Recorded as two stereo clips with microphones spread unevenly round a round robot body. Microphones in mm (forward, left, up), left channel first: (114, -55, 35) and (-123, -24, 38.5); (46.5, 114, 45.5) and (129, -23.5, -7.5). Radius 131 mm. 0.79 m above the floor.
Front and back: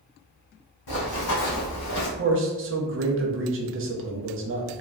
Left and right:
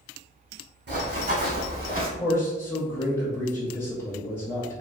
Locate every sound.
0.9 s running footsteps: 30° right, 1.7 m; by 2.1 s 10° right, 1.2 m
2.2 s a man speaking: 150° right, 0.7 m